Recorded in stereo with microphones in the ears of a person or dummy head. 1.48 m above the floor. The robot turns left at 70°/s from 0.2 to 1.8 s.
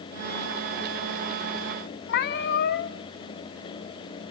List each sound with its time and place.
2.1 s a cat meowing: 60° left (ahead or behind), 1.5 m